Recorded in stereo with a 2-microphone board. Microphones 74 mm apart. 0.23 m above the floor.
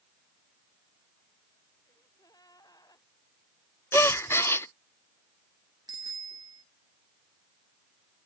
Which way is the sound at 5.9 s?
70° right (ahead or behind).